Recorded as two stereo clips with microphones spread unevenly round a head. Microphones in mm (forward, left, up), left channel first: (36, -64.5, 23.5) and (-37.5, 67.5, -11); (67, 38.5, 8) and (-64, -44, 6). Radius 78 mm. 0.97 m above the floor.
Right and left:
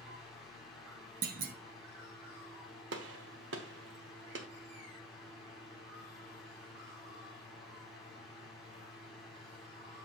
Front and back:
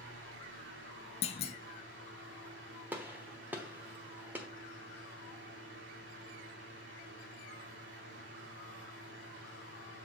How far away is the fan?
About 2.5 m.